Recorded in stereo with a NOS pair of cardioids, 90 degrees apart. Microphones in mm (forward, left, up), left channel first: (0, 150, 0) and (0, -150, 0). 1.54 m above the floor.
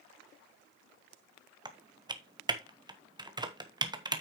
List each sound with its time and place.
1.6 s typing on a keyboard: 15° right, 1.2 m